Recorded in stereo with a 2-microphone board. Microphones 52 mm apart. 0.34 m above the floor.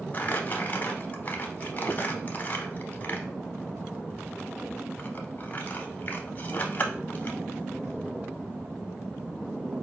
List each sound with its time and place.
0.1 s crumpling: 35° left (ahead or behind), 0.7 m